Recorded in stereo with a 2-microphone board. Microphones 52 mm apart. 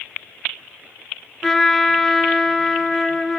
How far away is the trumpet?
About 0.8 m.